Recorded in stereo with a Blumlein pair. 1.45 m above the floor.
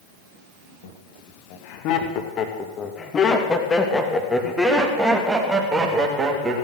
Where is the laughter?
50° left, 3 m; by 6.7 s 20° right, 3 m.